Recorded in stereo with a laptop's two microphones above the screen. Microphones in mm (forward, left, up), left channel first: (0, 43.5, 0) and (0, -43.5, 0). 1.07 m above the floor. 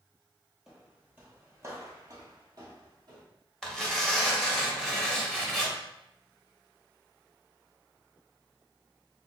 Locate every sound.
0.7 s footsteps: 10° right (ahead or behind), 1.2 m; by 3.2 s 50° right (ahead or behind), 1.7 m
3.6 s tearing paper: 5° left (ahead or behind), 1.3 m